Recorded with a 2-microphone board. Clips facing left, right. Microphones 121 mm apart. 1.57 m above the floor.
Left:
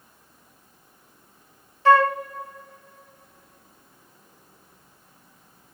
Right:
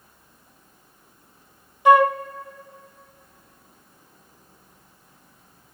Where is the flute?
15° right (ahead or behind), 0.5 m.